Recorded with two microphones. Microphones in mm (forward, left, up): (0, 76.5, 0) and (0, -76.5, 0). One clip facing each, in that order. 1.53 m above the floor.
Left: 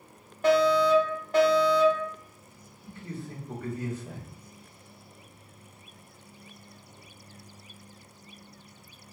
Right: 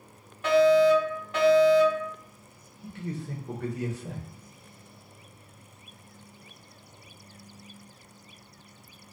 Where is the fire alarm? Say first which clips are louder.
Right 3 dB; 40° left (ahead or behind), 1.1 m.